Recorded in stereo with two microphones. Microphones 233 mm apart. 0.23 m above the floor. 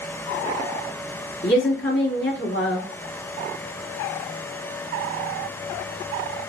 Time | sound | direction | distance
1.4 | a woman speaking | 50° left (ahead or behind) | 1.6 m